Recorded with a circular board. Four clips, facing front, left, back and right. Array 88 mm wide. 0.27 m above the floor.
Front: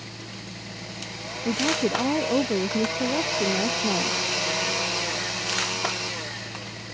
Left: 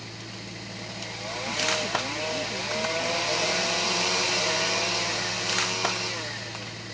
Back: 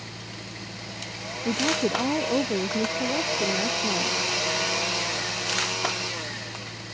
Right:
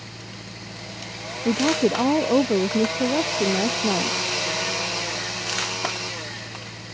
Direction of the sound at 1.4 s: 90° right.